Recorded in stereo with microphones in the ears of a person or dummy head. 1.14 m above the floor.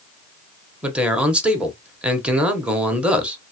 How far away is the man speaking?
About 1.1 m.